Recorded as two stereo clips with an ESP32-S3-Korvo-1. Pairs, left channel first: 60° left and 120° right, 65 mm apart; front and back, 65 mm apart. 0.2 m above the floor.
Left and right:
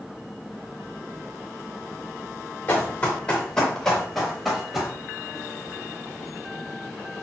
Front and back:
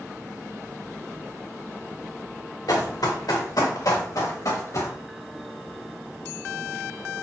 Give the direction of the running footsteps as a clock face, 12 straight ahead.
12 o'clock.